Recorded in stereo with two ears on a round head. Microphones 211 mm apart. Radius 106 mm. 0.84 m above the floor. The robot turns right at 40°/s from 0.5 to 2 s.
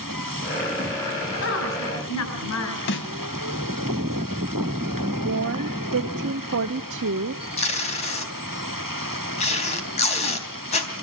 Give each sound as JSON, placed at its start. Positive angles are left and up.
{"t": 1.4, "sound": "a woman speaking", "side_deg": 50, "distance_m": 7.5}
{"t": 2.9, "sound": "a snare drum", "side_deg": 55, "distance_m": 2.0}
{"t": 5.2, "sound": "a woman speaking", "side_deg": -60, "distance_m": 0.8}
{"t": 7.6, "sound": "tape being pulled", "side_deg": 30, "distance_m": 3.5}